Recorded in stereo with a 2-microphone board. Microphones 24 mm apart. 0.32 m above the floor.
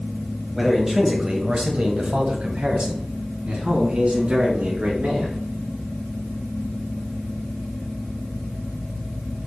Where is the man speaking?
5° right (ahead or behind), 1.7 m; by 5.4 s 65° right (ahead or behind), 4.5 m.